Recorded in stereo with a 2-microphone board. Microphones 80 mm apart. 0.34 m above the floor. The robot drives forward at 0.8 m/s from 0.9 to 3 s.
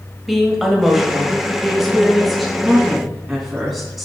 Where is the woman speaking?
Centre (ahead or behind), 1.6 m.